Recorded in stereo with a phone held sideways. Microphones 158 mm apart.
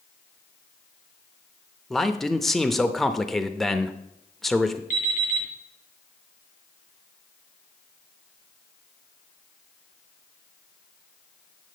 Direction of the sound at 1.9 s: Centre (ahead or behind).